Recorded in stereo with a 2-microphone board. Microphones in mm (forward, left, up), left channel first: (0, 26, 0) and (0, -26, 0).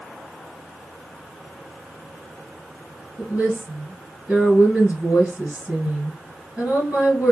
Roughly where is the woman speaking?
Centre.